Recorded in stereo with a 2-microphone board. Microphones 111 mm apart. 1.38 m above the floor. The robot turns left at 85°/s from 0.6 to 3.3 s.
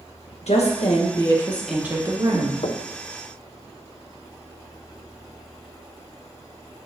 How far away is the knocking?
About 0.6 m.